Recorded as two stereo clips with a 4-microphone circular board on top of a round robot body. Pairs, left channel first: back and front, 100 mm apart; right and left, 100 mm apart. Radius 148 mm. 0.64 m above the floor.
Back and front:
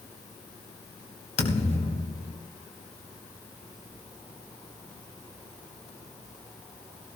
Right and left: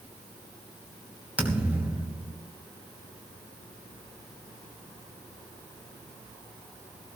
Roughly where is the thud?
Behind.